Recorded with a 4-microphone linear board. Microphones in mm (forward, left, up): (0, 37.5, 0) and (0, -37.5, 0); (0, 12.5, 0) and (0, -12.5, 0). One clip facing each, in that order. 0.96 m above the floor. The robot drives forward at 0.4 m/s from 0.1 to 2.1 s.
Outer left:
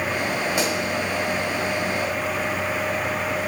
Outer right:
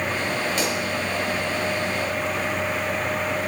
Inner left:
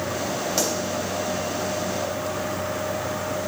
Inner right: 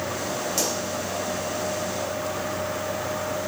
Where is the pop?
10° left (ahead or behind), 2.5 m.